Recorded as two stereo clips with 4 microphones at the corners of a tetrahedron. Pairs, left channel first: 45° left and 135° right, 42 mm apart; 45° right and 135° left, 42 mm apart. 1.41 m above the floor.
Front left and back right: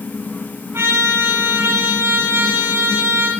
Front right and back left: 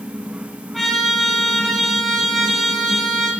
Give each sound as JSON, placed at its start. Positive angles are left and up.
{"t": 0.7, "sound": "a trumpet", "azimuth_deg": -130, "distance_m": 8.5}